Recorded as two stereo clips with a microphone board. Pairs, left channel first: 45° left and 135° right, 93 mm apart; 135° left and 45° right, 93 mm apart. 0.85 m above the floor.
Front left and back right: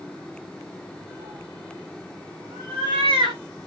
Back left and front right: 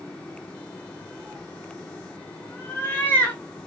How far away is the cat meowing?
About 2.5 m.